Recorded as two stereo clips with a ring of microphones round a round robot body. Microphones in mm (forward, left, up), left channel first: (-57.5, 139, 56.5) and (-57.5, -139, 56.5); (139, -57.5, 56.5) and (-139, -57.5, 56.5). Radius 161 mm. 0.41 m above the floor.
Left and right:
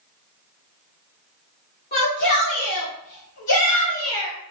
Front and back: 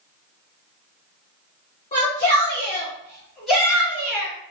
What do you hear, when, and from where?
1.9 s a shout: 55° left, 2.0 m; by 4.3 s 105° left, 2 m